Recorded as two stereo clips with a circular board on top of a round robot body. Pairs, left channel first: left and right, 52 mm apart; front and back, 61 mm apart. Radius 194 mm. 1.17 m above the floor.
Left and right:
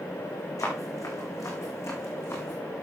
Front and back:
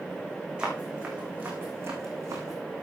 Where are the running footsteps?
105° left, 3.5 m; by 2.6 s 140° left, 3.5 m.